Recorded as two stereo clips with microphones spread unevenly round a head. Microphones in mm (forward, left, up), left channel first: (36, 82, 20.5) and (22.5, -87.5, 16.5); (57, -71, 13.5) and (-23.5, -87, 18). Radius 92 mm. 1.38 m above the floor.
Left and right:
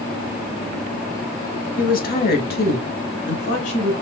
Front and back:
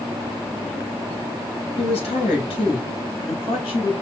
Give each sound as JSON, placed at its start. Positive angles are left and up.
{"t": 1.8, "sound": "a woman speaking", "azimuth_deg": 45, "distance_m": 1.3}